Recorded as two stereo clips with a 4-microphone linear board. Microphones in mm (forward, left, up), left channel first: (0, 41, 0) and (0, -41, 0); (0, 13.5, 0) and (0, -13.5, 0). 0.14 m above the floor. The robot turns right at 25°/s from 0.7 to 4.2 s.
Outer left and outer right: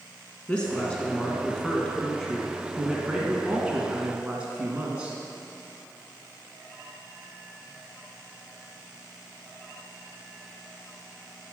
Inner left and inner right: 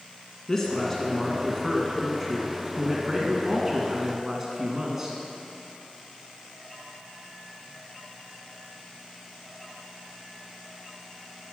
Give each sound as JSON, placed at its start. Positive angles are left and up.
{"t": 0.5, "sound": "a woman speaking", "side_deg": 15, "distance_m": 1.1}